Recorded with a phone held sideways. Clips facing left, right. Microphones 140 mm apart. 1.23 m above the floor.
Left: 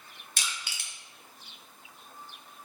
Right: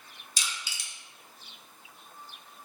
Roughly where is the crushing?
Left.